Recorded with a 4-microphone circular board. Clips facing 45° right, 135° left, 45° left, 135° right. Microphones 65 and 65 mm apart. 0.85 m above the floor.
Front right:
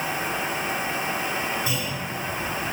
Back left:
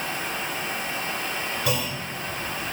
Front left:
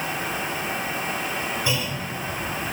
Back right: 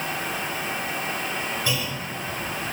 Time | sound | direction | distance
1.6 | a clunk | 115° left | 3.5 m